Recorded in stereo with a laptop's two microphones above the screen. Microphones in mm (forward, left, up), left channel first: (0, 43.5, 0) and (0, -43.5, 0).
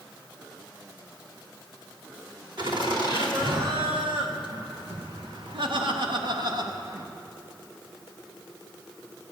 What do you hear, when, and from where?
2.6 s laughter: 60° right (ahead or behind), 2.5 m; by 7.1 s 45° right (ahead or behind), 1.4 m